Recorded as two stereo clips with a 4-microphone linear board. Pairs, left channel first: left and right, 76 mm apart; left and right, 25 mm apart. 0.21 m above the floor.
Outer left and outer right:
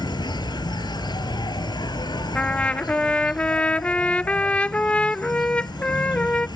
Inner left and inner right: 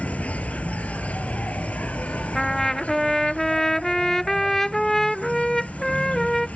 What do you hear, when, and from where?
0.0 s an insect: 70° left (ahead or behind)
2.4 s a trumpet: 20° left (ahead or behind)